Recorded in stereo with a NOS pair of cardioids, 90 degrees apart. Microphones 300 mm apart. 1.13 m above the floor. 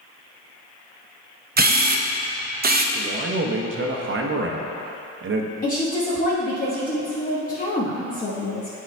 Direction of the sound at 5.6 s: 30° left.